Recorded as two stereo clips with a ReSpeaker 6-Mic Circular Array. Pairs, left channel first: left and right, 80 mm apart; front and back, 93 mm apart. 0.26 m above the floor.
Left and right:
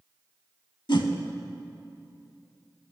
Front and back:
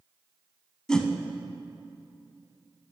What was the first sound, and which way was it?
A whoosh, 80° left.